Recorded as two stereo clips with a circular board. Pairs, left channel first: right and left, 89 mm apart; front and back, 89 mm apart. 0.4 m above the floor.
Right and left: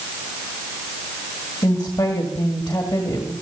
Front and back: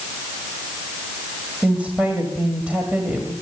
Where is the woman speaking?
110° right, 1.6 m.